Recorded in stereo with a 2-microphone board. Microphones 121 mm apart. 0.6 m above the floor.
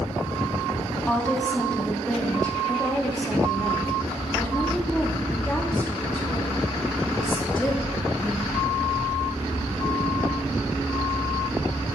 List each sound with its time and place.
1.1 s a woman speaking: 10° left (ahead or behind), 0.9 m